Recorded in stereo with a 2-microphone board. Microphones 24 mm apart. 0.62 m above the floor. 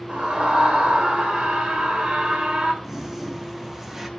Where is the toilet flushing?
15° right (ahead or behind), 1.1 m.